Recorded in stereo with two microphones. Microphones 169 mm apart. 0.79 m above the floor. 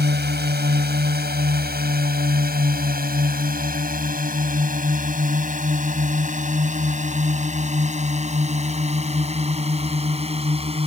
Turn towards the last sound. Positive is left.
turn(degrees=-35)  # may be behind; listen again after turning